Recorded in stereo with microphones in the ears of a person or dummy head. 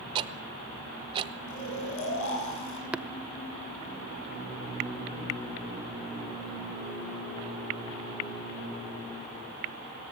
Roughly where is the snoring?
Left.